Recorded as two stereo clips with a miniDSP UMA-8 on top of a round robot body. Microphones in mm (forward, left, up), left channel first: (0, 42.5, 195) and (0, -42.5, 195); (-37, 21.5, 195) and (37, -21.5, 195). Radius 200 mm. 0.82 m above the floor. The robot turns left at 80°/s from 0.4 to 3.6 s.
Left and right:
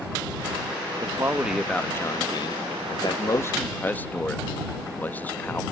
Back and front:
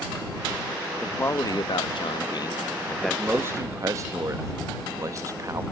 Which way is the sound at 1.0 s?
135° right.